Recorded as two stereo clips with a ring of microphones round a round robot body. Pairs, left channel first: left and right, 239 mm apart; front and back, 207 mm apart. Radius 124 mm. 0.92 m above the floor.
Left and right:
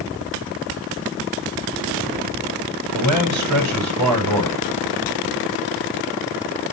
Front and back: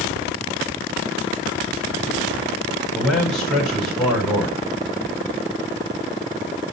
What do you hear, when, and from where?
2.9 s a man speaking: 90° right, 4.5 m